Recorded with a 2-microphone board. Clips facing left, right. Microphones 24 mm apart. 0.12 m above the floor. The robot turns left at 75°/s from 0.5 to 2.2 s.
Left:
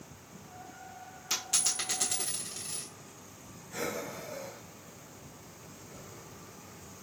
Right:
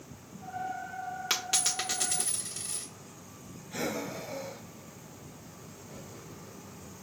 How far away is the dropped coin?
About 1.2 m.